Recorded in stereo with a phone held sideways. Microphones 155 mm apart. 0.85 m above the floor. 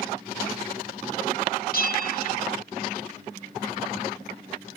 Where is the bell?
70° left (ahead or behind), 1.3 m.